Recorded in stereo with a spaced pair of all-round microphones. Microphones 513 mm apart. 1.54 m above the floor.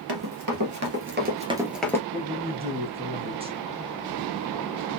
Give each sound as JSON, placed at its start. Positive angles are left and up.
{"t": 0.1, "sound": "running footsteps", "side_deg": -45, "distance_m": 2.0}
{"t": 2.1, "sound": "a man speaking", "side_deg": -10, "distance_m": 1.9}